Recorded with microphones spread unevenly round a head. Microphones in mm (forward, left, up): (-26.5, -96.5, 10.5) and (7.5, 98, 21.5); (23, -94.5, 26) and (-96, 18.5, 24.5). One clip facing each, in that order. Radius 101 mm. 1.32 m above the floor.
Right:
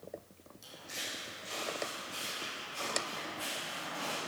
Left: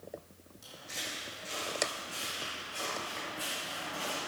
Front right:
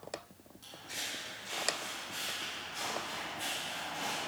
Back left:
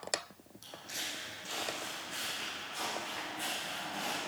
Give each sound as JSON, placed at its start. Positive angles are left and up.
{"t": 0.6, "sound": "footsteps", "azimuth_deg": 175, "distance_m": 4.5}